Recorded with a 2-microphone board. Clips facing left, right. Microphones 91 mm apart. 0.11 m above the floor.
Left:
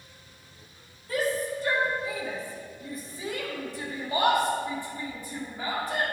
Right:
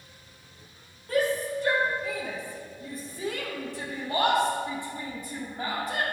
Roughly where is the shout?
Right.